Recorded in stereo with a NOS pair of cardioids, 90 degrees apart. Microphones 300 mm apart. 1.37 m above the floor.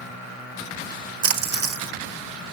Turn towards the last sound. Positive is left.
turn(degrees=-50)